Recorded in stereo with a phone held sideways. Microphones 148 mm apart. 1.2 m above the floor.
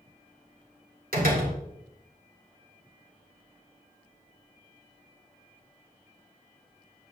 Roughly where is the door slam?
Right.